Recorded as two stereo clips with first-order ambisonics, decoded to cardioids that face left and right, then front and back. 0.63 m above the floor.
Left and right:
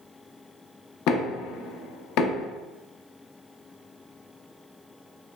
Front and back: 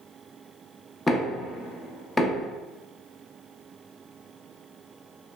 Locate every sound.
1.1 s knocking: 85° left, 0.5 m